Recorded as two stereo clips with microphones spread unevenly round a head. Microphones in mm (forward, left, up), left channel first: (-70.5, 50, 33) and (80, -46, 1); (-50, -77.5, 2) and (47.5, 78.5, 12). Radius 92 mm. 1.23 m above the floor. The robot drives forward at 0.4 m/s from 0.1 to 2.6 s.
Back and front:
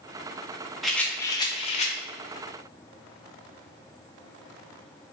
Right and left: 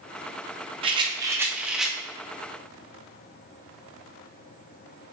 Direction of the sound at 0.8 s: 75° left.